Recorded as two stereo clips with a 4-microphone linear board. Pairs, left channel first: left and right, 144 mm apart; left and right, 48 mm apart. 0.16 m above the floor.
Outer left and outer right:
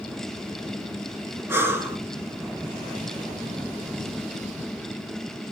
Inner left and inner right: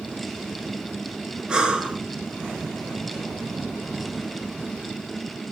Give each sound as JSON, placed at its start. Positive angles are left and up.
{"t": 1.5, "sound": "breathing", "side_deg": -15, "distance_m": 0.5}